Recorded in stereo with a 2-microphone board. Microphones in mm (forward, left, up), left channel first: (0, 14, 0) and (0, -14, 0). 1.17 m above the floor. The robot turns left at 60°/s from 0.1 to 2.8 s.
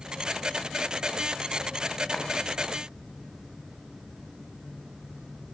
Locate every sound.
2.1 s a clap: 15° left (ahead or behind), 6.5 m; by 2.2 s 10° left (ahead or behind), 6.5 m